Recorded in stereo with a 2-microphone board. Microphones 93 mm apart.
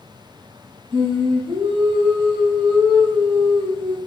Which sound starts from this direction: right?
Singing, at 0.9 s.